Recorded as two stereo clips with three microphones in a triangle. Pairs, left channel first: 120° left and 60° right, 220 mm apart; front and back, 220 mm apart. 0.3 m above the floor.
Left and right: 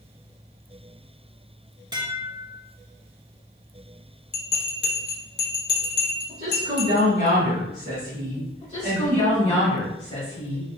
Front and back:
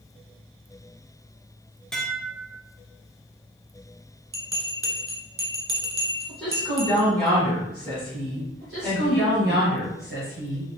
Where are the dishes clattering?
85° right, 0.6 m.